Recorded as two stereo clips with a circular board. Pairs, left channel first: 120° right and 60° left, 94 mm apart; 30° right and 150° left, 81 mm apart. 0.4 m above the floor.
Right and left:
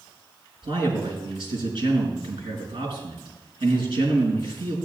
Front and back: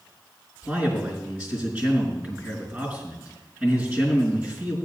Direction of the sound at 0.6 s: 80° left.